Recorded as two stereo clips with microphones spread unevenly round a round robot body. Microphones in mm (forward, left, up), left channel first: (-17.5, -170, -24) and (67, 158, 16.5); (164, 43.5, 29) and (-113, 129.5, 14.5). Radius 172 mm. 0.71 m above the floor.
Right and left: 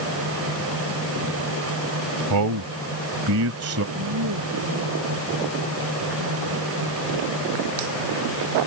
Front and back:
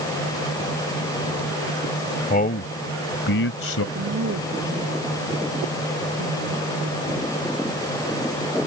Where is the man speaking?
45° left; by 3.9 s 25° left.